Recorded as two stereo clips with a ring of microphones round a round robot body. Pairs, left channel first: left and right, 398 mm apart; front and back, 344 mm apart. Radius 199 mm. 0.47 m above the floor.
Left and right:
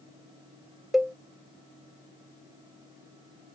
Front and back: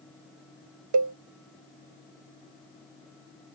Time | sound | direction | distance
0.9 | a cowbell | straight behind | ?